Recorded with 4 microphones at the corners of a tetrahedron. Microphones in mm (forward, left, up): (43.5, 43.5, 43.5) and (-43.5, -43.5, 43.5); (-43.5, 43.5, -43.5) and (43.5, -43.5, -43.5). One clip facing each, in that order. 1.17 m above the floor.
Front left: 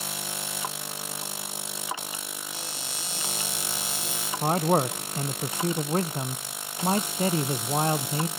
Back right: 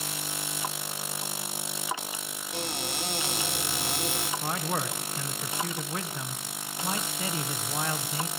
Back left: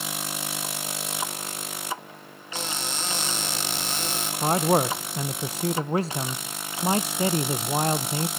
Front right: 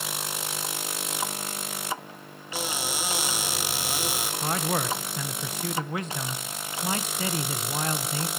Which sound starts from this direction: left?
A man speaking, at 4.4 s.